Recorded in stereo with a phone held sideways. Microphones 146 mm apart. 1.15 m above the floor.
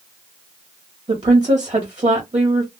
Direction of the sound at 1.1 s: 40° right (ahead or behind).